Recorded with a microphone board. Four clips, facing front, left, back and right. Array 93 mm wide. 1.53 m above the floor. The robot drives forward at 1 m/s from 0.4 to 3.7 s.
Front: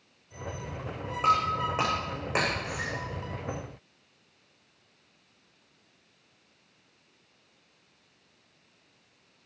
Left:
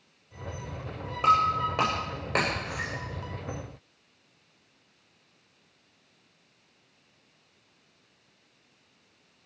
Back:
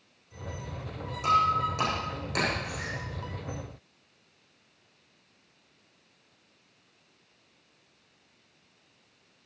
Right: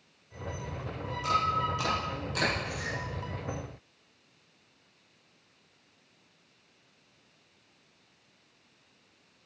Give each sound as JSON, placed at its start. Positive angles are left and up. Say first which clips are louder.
{"t": 1.2, "sound": "breaking glass", "louder": "left 6 dB, back 1 dB", "azimuth_deg": 55, "distance_m": 9.5}